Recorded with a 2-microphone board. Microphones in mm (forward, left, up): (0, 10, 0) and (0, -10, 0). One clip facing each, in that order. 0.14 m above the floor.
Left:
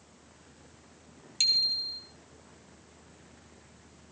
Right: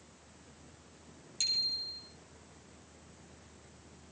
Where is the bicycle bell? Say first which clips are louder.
Left 7 dB; 40° left (ahead or behind), 3 m.